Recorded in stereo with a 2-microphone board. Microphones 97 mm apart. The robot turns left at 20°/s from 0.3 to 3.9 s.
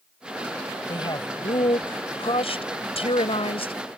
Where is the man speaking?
135° left; by 3.7 s 75° left.